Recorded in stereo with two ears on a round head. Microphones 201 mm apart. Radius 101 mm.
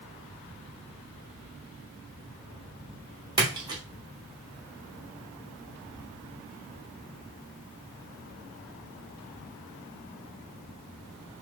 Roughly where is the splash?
Centre.